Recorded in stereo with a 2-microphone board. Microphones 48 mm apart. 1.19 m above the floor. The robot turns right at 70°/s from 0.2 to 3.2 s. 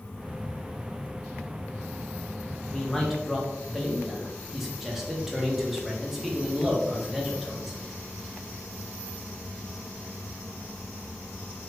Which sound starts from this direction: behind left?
A man speaking, at 2.7 s.